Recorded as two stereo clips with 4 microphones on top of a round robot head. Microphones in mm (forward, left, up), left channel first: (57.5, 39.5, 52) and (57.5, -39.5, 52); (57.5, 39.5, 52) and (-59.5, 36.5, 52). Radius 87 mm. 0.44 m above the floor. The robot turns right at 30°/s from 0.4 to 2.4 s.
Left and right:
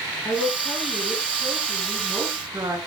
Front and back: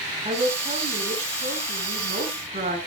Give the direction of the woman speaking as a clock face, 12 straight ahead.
7 o'clock.